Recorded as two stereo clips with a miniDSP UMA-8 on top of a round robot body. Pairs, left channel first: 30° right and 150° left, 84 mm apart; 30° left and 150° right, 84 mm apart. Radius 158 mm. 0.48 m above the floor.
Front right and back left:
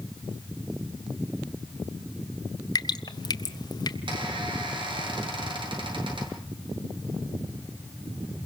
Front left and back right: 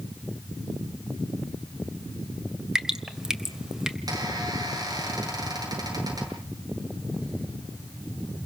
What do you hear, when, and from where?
2.8 s dripping: 65° right, 1.7 m
4.1 s a squeak: 170° left, 8.5 m